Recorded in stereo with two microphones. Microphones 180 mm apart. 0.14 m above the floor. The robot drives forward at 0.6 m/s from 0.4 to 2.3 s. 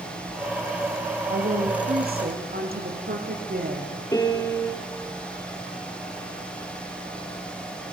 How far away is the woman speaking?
About 7 m.